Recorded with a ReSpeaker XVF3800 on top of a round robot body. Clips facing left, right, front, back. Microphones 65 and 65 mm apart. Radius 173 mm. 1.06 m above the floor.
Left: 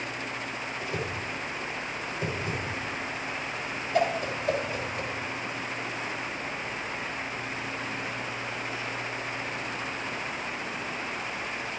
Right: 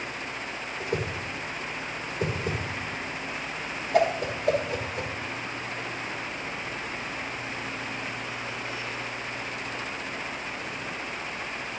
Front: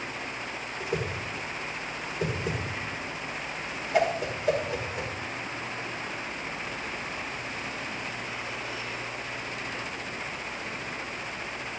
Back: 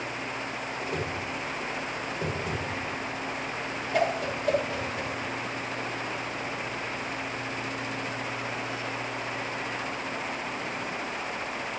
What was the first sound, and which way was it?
A whoosh, 80° right.